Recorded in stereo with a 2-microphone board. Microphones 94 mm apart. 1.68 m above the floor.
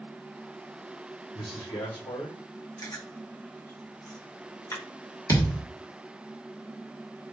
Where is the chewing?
40° left (ahead or behind), 1.1 m.